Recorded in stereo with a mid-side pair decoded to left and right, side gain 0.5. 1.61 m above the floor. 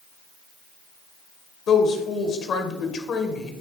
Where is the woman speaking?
60° left, 1.6 m.